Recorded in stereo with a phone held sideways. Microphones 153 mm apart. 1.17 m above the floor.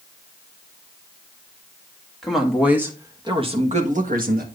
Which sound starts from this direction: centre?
A woman speaking, at 2.2 s.